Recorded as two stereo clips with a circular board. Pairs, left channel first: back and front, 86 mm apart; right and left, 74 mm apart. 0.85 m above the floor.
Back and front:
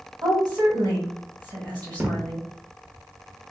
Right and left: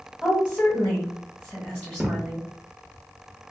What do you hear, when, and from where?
0.2 s a woman speaking: 20° right, 1.4 m
2.0 s a thud: 30° left, 0.5 m